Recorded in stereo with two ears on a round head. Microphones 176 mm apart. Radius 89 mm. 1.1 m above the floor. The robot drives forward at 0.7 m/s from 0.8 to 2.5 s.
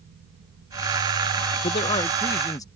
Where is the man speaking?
35° left (ahead or behind); by 2.6 s 20° left (ahead or behind).